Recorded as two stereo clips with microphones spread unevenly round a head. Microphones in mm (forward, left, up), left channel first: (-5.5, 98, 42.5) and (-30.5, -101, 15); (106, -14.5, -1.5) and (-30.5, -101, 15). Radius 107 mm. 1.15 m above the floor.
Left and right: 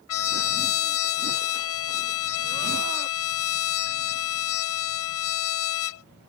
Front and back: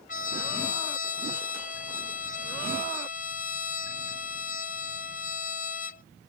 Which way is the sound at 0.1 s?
90° left.